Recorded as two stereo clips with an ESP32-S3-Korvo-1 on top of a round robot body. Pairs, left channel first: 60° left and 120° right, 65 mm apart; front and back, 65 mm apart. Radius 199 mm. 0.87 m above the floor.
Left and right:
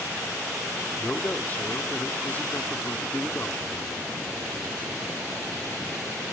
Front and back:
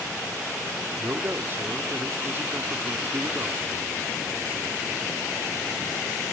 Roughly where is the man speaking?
Behind left.